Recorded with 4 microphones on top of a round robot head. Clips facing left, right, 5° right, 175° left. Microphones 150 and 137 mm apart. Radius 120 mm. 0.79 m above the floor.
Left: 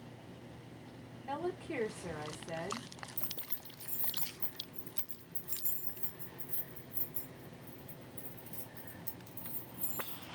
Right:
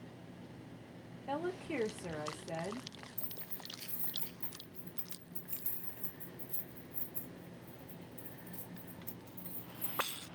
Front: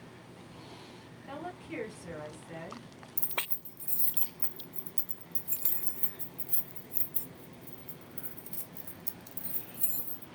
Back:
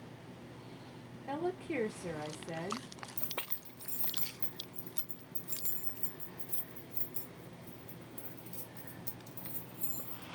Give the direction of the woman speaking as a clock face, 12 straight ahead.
5 o'clock.